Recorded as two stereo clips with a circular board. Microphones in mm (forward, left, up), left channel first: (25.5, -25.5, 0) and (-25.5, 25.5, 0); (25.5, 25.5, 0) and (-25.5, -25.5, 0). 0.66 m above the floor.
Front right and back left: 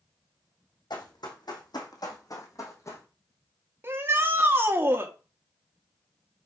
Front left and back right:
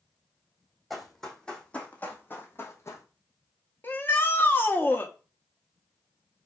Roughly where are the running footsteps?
Ahead right.